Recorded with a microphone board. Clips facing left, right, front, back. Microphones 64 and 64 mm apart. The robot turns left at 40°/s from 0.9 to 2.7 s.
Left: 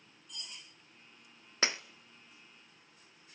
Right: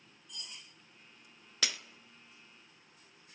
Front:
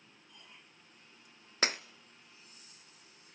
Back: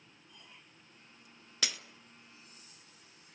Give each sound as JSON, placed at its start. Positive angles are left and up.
{"t": 1.6, "sound": "breaking glass", "azimuth_deg": 40, "distance_m": 0.6}